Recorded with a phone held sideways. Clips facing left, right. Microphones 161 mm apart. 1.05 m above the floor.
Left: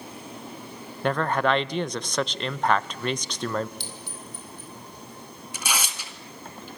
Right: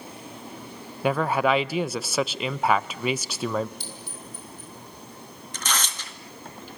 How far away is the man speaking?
About 0.6 m.